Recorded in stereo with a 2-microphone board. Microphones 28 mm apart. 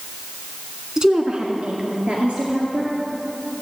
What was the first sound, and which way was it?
A woman speaking, 20° right (ahead or behind).